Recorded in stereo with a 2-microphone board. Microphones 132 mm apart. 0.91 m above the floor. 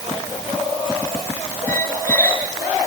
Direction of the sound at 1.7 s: 15° left (ahead or behind).